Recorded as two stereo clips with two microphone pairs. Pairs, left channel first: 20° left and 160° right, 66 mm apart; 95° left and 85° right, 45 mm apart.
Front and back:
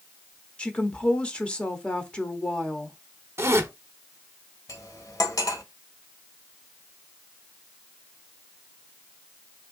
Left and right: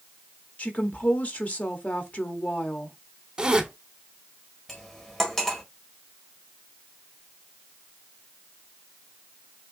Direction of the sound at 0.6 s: 80° left.